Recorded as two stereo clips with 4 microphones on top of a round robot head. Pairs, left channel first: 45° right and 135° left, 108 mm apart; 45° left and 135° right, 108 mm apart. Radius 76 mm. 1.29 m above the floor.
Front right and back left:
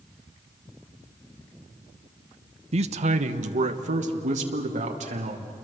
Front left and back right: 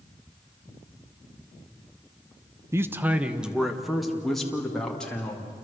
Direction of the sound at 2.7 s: 160° left.